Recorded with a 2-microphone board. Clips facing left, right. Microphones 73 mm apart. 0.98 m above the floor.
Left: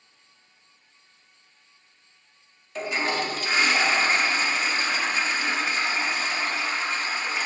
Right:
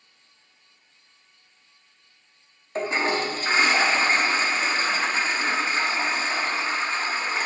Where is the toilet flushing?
30° right (ahead or behind), 1.1 m.